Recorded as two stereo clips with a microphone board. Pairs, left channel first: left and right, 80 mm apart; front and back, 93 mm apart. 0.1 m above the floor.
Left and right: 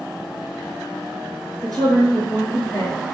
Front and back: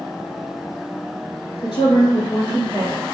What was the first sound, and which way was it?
A woman speaking, straight ahead.